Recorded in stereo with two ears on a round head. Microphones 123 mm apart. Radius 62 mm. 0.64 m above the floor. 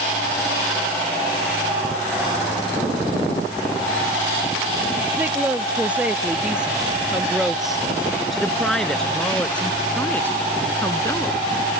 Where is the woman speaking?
10° right (ahead or behind); by 11.4 s 20° left (ahead or behind).